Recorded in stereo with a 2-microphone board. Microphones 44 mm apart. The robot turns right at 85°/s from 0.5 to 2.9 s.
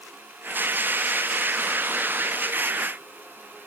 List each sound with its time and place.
Only background noise.